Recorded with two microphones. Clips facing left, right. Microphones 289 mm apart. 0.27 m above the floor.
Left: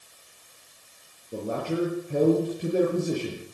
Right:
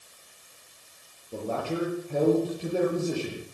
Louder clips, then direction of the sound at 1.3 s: Left 2 dB; 20° left (ahead or behind).